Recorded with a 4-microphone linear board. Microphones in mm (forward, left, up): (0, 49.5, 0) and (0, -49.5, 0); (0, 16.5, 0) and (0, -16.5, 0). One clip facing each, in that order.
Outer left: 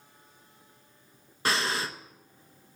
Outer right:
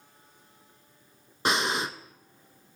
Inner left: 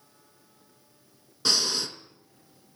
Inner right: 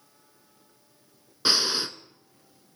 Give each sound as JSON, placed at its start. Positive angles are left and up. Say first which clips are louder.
{"t": 1.4, "sound": "breathing", "louder": "outer right 2 dB, inner right 2 dB", "side_deg": -20, "distance_m": 0.5}